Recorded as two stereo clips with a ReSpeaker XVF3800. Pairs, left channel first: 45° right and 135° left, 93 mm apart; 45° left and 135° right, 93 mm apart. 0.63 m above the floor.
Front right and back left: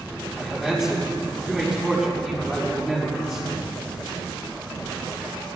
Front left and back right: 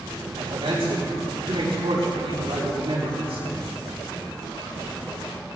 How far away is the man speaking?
About 4 m.